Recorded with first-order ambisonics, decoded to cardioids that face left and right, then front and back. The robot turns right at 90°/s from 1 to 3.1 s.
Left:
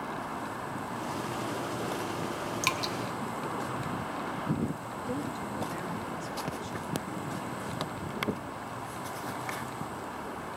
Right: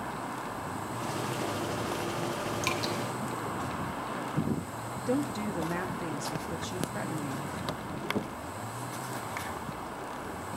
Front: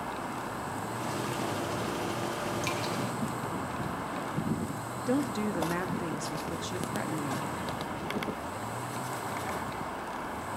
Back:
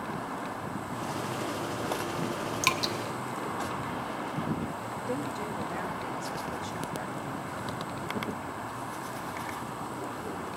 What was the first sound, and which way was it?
Dripping, 155° left.